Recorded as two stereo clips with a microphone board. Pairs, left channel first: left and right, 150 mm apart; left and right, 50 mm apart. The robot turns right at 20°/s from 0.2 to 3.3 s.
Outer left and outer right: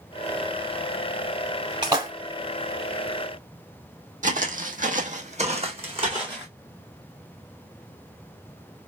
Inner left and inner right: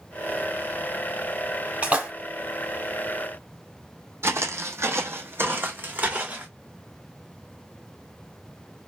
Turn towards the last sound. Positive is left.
turn(degrees=-30)  # may be behind; listen again after turning